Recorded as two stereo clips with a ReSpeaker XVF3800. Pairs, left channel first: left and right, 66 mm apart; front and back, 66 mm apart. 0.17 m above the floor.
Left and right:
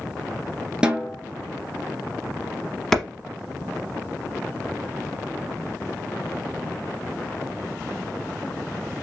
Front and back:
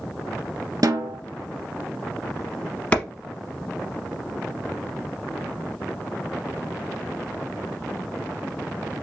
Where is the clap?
15° left, 0.9 m.